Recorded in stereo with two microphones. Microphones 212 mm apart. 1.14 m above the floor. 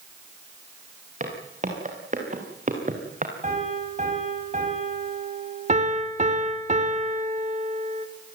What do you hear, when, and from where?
1.2 s footsteps: 35° right (ahead or behind), 7 m
3.4 s a piano: 35° right (ahead or behind), 7.5 m
5.7 s a piano: 30° right (ahead or behind), 2.5 m